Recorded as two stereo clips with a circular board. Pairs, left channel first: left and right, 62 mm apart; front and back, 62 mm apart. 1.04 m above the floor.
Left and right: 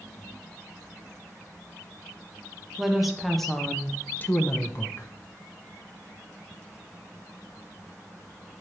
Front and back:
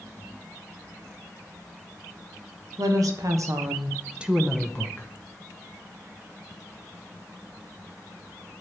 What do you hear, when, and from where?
2.8 s a woman speaking: 175° right, 1.3 m; by 5.1 s 55° left, 0.9 m